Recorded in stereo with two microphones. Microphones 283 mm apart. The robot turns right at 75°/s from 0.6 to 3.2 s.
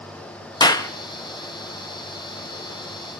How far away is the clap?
About 0.5 m.